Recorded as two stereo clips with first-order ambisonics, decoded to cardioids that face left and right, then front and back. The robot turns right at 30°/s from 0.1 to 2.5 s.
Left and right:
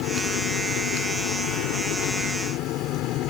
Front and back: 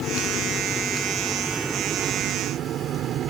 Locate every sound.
0.0 s an engine running: 55° left; by 3.3 s 125° left